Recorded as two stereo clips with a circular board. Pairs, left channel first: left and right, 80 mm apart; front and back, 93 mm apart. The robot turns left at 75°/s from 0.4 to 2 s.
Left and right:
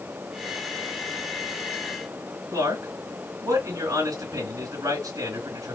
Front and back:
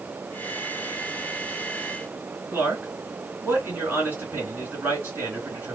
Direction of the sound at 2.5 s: 120° right.